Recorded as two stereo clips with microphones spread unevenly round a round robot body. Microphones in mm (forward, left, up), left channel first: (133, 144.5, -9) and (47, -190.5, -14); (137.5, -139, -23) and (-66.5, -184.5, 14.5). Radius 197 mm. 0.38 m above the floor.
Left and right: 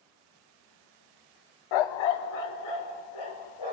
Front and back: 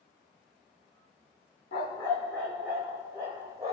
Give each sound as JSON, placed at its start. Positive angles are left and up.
{"t": 1.7, "sound": "a dog barking", "azimuth_deg": 75, "distance_m": 0.6}